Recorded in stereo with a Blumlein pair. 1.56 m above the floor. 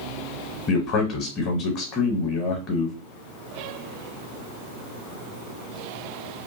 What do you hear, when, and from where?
0.7 s a man speaking: 30° left, 0.9 m